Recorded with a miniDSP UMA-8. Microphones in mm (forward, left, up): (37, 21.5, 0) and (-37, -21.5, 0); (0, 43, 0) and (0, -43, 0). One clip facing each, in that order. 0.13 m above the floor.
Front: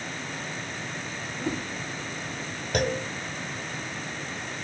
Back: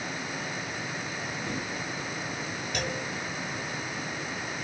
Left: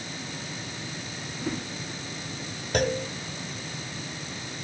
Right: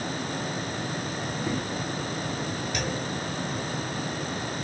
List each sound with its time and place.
1.4 s a whoosh: 20° right, 6.5 m
2.7 s a clunk: 55° left, 0.7 m